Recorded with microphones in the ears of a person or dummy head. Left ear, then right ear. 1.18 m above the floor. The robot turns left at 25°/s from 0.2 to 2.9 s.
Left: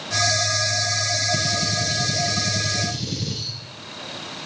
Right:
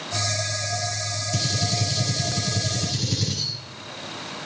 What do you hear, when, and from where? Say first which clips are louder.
1.3 s a gunshot: left 3 dB; 90° right, 7 m; by 3.5 s 130° right, 7 m